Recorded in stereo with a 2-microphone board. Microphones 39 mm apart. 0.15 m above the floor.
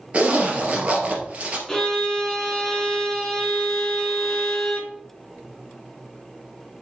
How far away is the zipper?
About 2.5 m.